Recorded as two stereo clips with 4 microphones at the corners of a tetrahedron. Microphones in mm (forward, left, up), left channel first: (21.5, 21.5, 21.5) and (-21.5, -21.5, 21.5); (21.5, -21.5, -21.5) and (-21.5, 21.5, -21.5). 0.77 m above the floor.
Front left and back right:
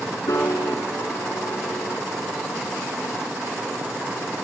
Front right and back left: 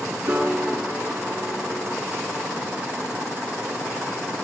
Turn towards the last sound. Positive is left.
turn(degrees=75)